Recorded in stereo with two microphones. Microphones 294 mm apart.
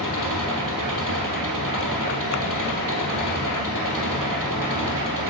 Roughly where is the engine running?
Right.